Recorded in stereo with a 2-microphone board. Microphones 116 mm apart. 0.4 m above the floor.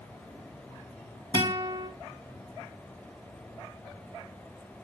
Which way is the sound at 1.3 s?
45° right (ahead or behind).